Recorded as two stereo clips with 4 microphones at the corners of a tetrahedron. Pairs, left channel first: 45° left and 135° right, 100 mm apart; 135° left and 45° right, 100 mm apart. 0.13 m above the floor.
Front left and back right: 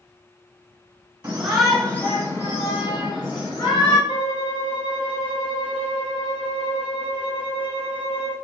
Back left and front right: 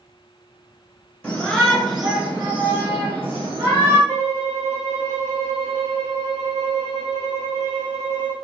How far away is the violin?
About 2.5 m.